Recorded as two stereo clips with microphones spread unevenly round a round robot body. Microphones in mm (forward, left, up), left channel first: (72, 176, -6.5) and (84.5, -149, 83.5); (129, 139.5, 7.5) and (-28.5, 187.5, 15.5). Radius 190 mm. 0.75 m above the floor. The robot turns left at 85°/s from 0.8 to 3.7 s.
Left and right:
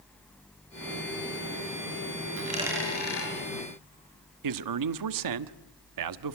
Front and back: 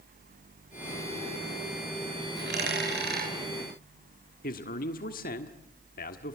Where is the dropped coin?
145° right, 6.5 m; by 3.3 s 135° left, 6.5 m.